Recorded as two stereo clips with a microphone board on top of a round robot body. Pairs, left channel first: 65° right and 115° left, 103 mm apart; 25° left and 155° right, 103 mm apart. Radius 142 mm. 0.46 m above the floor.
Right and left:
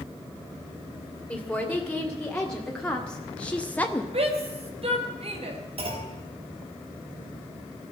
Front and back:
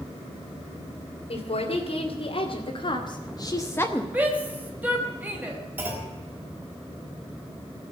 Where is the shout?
130° left, 4 m.